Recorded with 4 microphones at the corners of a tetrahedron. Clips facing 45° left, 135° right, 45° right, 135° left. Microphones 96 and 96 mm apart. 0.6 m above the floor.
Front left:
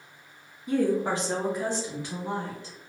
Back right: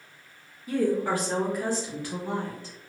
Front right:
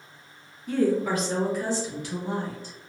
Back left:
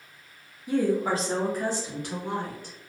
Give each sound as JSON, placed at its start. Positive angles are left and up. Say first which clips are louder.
{"t": 0.7, "sound": "a woman speaking", "louder": "even, front right 1 dB", "azimuth_deg": 70, "distance_m": 0.7}